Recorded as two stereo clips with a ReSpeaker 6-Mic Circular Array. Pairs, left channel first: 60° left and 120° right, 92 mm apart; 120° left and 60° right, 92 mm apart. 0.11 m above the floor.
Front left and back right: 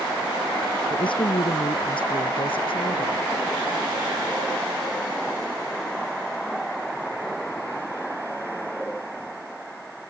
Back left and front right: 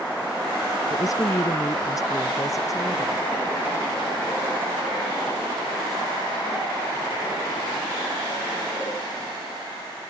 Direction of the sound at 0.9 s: 75° left.